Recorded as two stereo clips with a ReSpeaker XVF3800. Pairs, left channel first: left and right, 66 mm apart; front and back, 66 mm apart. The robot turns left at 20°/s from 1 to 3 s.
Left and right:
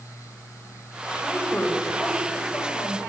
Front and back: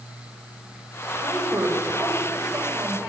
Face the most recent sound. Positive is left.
turn(degrees=125)